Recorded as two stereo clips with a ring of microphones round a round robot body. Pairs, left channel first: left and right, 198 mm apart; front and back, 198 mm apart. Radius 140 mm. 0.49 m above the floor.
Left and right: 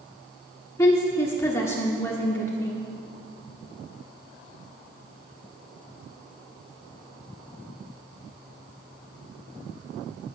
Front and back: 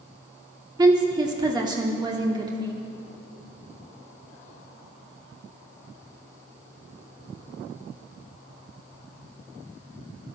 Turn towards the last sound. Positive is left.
turn(degrees=150)